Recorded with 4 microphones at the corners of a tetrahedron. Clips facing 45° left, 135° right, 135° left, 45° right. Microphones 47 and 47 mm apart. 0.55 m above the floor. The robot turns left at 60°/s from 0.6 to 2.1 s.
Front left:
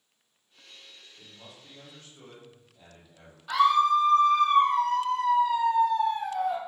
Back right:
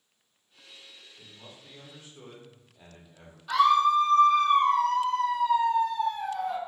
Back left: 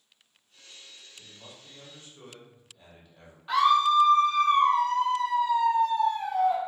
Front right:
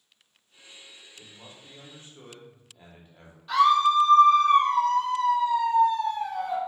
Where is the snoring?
I don't hear snoring.